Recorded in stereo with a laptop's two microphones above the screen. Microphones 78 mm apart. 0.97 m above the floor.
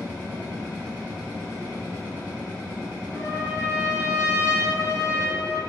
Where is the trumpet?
55° left (ahead or behind), 1.1 m.